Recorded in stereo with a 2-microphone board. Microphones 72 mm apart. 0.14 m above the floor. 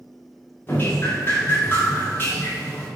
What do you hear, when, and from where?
0.7 s dripping: 30° left (ahead or behind), 5 m